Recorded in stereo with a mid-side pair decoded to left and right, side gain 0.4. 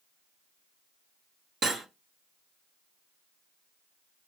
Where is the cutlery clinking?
65° right, 1.1 m.